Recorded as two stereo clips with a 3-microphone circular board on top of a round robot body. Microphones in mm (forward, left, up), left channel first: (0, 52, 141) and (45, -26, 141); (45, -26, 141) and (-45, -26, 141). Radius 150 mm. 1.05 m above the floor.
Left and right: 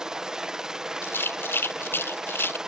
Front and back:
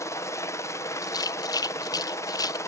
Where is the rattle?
55° left.